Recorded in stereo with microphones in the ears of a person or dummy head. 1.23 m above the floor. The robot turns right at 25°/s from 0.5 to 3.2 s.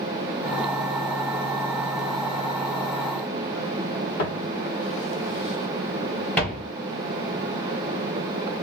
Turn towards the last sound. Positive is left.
turn(degrees=0)  # may be behind; listen again after turning